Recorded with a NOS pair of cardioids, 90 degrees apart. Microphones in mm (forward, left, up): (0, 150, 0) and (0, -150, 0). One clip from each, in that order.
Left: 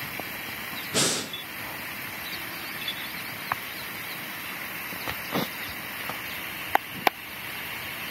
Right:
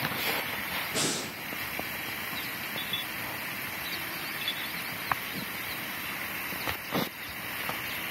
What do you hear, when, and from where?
0.9 s breathing: 30° left, 0.5 m